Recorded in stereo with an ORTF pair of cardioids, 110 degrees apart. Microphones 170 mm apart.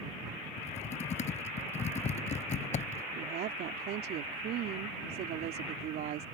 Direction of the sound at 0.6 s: 40° left.